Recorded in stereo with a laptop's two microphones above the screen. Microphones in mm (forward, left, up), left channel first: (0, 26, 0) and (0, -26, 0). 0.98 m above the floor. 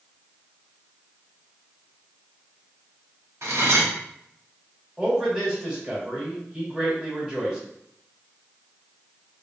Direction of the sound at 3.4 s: 65° right (ahead or behind).